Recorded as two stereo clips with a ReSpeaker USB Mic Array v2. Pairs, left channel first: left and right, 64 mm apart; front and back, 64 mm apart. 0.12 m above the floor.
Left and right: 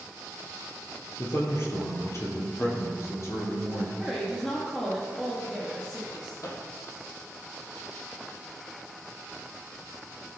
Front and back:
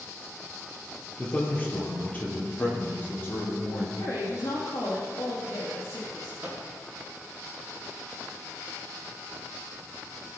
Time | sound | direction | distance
1.2 | a man speaking | 60° left | 3 m
4.0 | a woman speaking | 20° left | 3.5 m
6.4 | a microwave | 110° left | 3 m